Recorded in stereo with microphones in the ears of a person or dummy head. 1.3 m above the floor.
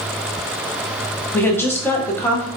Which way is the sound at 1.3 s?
15° left (ahead or behind).